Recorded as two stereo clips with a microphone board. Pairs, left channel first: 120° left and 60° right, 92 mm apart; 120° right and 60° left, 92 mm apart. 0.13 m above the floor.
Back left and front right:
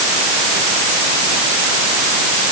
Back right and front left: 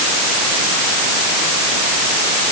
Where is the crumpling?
No crumpling in this recording.